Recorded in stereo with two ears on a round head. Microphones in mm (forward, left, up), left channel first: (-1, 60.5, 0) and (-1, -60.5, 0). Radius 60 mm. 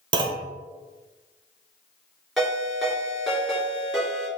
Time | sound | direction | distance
0.1 | a clunk | 35° right (ahead or behind) | 0.8 m
2.4 | a ringtone | centre (ahead or behind) | 3 m